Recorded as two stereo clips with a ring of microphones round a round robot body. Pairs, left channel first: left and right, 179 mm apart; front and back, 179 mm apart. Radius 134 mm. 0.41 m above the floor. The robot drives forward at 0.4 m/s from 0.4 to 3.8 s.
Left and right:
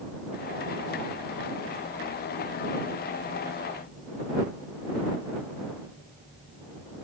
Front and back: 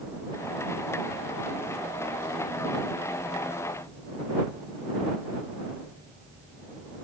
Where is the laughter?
I don't hear laughter.